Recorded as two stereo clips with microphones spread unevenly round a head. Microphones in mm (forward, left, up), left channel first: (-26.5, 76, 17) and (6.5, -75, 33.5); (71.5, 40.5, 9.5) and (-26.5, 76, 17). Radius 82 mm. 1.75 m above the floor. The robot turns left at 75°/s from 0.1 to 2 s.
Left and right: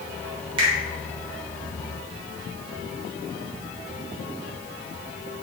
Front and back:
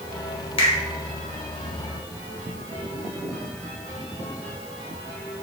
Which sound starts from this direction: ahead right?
A finger snap, at 0.6 s.